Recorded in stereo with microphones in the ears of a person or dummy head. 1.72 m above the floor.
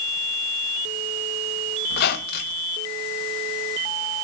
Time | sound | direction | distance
1.9 | a squeak | 55° left (ahead or behind) | 1.4 m